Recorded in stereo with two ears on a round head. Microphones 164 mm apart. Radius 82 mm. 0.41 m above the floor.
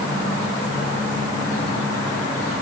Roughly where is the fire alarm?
I don't hear a fire alarm.